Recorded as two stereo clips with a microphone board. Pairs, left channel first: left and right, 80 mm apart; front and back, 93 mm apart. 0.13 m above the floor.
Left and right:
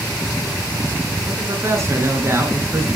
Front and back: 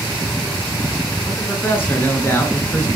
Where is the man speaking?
55° right, 2 m.